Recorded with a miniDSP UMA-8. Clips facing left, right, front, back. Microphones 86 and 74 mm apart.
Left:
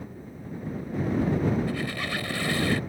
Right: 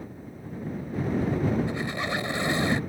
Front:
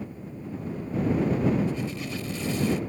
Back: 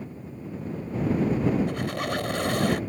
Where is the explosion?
No explosion in this recording.